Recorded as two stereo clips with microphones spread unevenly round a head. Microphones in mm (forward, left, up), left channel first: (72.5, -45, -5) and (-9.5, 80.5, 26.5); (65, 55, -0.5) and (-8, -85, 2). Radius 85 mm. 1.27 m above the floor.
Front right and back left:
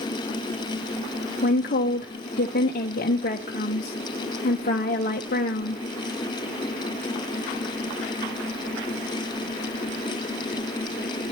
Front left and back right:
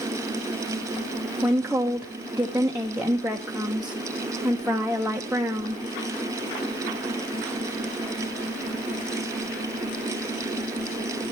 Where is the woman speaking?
35° right, 1.2 m.